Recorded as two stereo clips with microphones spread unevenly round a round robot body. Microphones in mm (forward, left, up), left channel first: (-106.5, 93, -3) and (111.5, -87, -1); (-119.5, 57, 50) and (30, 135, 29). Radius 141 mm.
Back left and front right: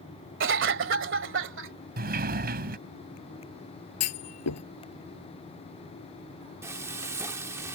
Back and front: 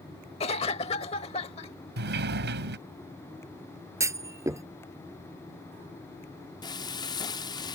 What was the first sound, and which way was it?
A cough, 85° right.